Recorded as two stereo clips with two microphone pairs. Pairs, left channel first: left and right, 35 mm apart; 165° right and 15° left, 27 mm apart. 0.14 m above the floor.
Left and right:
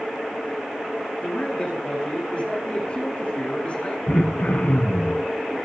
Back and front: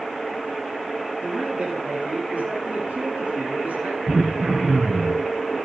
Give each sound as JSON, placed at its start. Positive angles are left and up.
{"t": 1.2, "sound": "a man speaking", "azimuth_deg": 30, "distance_m": 8.5}
{"t": 4.1, "sound": "throat clearing", "azimuth_deg": 65, "distance_m": 4.0}